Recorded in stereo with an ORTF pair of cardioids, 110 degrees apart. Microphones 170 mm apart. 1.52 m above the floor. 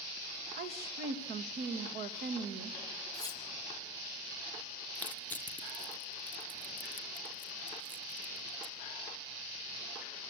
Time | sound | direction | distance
0.6 | a woman speaking | 65° right | 2 m
3.1 | cutlery clinking | 25° left | 3 m
5.0 | crushing | 10° left | 1.2 m